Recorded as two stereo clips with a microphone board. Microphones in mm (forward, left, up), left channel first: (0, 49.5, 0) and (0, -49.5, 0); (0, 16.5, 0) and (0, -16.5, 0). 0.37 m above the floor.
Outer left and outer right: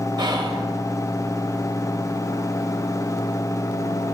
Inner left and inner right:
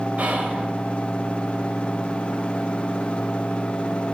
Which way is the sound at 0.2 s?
45° right (ahead or behind).